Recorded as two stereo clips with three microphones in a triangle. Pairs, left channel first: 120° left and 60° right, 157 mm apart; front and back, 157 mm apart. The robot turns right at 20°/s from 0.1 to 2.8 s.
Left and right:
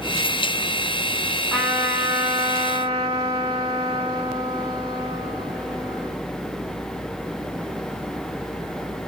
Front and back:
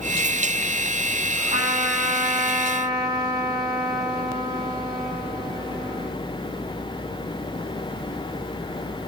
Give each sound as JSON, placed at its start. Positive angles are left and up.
{"t": 1.5, "sound": "a trumpet", "azimuth_deg": -145, "distance_m": 2.0}